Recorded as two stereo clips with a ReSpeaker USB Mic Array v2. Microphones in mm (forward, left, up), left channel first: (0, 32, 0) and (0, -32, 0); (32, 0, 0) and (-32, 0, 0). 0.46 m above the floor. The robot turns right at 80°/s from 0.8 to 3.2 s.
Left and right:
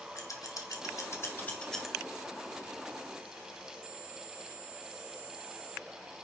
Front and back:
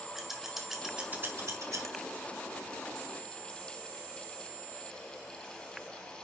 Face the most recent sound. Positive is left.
turn(degrees=-75)